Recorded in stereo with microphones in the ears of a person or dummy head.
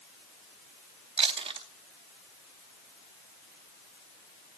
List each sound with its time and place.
1.2 s chewing: 25° right (ahead or behind), 0.7 m